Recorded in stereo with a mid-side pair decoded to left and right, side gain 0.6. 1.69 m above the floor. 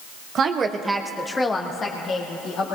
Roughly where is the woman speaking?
Ahead right.